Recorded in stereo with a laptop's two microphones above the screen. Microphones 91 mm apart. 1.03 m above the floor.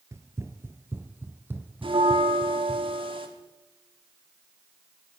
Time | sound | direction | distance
0.1 | running footsteps | 30° right (ahead or behind) | 1.3 m
1.8 | a bell | 70° right (ahead or behind) | 3 m